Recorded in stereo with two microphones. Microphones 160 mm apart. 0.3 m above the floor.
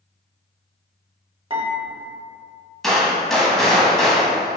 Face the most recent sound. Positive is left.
turn(degrees=0)  # may be behind; listen again after turning